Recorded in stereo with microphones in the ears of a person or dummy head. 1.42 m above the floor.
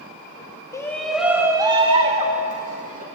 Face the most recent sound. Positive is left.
turn(degrees=-45)  # may be behind; listen again after turning